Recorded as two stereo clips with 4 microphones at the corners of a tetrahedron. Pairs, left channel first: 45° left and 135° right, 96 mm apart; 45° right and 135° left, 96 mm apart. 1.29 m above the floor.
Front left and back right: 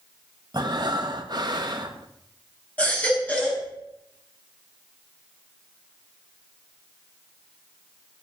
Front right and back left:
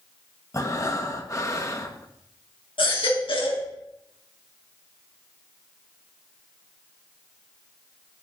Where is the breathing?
95° right, 1.4 m.